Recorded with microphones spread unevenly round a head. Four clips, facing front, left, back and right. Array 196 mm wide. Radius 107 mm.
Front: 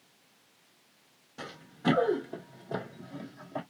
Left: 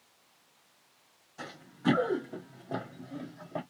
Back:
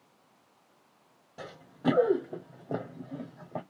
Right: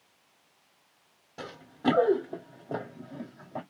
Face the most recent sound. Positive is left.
turn(degrees=170)